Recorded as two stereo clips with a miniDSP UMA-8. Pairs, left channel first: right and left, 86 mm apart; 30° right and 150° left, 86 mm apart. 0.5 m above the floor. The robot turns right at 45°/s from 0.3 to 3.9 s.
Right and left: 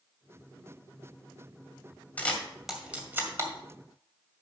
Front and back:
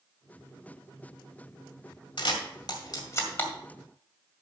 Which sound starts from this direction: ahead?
A camera shutter, at 2.2 s.